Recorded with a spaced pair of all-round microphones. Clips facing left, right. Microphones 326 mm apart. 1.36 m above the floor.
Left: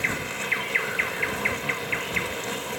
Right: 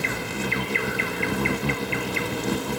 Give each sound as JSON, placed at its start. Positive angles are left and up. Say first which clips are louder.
{"t": 0.0, "sound": "an insect", "louder": "right 4 dB", "side_deg": -50}